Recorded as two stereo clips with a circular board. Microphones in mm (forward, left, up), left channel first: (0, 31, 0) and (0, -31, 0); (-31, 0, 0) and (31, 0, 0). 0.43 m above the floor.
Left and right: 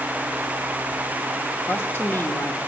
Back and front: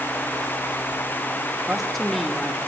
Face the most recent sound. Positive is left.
turn(degrees=95)